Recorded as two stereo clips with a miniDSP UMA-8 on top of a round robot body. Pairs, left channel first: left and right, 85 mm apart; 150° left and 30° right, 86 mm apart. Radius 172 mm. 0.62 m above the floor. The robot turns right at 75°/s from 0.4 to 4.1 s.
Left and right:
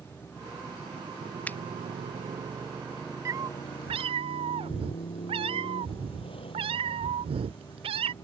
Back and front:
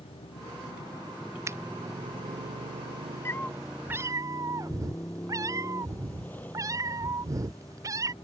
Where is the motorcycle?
160° left; by 8.2 s 80° left.